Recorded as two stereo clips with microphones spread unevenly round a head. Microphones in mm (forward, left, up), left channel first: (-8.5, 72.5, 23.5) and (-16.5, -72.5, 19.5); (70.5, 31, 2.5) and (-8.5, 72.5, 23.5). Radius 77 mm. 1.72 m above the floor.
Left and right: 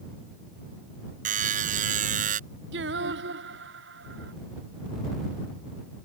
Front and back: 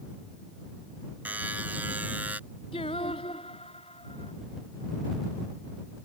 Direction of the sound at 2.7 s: 85° right.